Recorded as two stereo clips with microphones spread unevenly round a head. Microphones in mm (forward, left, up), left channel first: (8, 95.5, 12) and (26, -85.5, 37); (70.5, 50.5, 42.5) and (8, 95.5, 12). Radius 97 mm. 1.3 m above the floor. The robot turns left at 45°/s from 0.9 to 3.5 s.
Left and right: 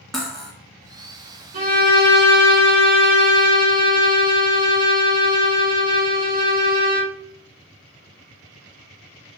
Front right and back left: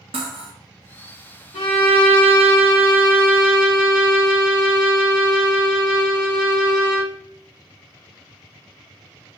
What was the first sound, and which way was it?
Cutlery clinking, 170° right.